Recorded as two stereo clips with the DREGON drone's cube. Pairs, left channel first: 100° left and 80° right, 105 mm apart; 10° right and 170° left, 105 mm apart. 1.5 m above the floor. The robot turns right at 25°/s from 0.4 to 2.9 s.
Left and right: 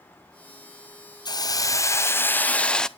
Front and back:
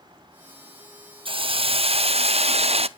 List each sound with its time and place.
1.2 s a hiss: 145° left, 0.6 m; by 2.9 s 175° right, 0.6 m